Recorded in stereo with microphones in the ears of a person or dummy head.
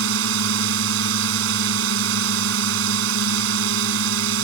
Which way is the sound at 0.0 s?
80° right.